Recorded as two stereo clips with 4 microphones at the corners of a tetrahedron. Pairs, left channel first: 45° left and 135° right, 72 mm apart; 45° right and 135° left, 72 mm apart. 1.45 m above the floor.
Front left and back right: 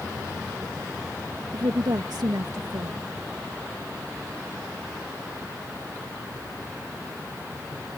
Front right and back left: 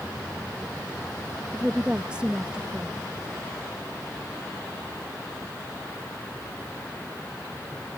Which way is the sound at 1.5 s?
150° right.